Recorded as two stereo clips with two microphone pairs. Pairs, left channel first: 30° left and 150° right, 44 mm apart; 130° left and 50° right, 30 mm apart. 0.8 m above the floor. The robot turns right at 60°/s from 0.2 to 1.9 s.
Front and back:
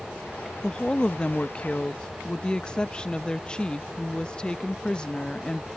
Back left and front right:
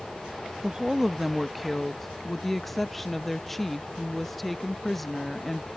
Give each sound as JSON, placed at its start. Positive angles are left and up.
{"t": 0.6, "sound": "a woman speaking", "azimuth_deg": -15}